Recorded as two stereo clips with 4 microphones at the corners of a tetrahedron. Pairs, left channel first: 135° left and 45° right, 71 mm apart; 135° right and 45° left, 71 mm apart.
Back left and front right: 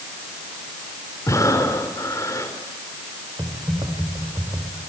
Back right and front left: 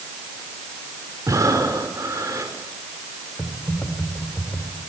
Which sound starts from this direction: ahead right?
Typing on a keyboard, at 3.4 s.